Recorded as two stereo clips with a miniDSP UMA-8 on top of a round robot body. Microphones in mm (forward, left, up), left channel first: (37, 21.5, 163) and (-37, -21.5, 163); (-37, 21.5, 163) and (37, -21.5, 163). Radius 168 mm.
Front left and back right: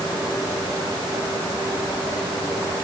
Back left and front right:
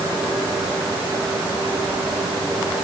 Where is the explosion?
No explosion in this recording.